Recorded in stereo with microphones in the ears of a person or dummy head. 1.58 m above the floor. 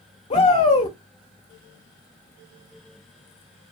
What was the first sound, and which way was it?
A shout, 25° left (ahead or behind).